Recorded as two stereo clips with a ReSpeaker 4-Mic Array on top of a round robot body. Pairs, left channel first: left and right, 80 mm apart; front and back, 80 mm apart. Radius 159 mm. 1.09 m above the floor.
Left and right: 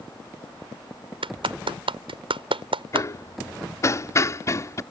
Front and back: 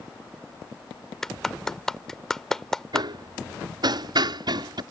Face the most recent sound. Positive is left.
turn(degrees=145)